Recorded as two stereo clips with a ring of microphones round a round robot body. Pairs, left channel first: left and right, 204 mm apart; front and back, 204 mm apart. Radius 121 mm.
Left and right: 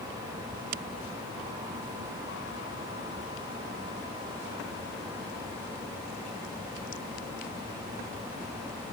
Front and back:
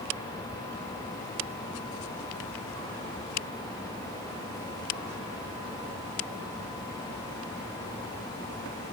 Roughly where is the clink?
I don't hear a clink.